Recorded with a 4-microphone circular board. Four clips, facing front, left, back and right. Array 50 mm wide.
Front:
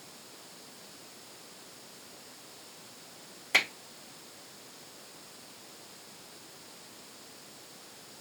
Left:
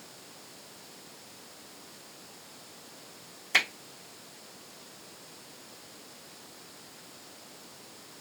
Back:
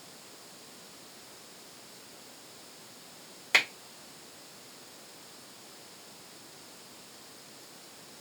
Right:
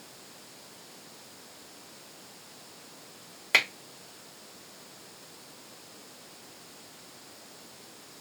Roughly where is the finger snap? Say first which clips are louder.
Right 2 dB, back 1 dB; behind right.